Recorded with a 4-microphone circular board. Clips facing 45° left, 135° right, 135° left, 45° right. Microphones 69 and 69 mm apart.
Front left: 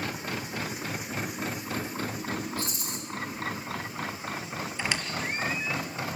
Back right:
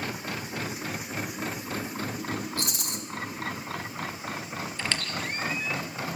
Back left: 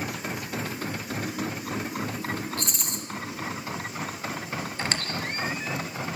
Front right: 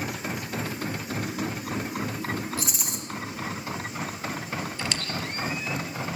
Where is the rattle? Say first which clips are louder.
Back right 1 dB, front right 1 dB; 130° right, 1.9 m.